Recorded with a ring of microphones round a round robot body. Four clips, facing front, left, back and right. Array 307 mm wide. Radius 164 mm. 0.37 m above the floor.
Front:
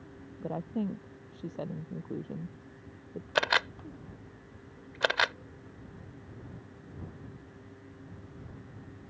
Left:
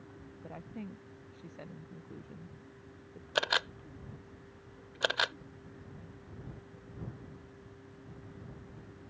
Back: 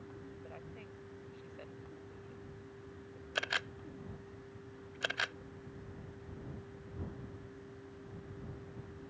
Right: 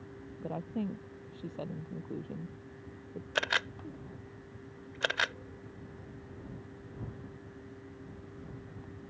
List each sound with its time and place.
0.4 s a woman speaking: 25° right
3.4 s a camera shutter: 10° left